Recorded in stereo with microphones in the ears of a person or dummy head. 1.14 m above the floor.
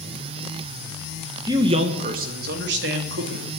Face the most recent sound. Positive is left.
turn(degrees=-70)  # may be behind; listen again after turning